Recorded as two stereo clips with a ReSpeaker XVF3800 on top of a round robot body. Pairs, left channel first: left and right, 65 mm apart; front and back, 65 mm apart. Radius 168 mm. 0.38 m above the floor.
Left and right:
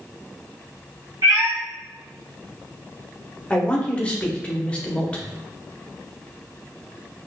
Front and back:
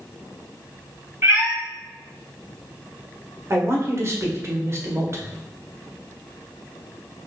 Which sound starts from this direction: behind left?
A man speaking, at 3.5 s.